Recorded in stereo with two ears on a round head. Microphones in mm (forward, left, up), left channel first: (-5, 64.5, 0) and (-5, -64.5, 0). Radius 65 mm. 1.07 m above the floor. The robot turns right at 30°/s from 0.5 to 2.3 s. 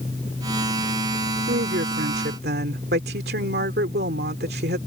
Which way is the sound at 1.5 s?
75° right (ahead or behind).